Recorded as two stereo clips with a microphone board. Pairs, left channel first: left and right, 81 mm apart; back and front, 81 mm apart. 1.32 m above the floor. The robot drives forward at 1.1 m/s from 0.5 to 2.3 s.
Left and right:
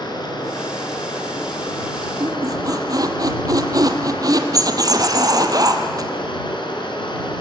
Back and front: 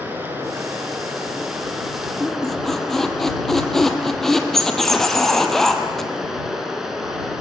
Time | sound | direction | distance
0.0 | running water | 65° left | 6 m
2.2 | a squeak | 90° right | 2.0 m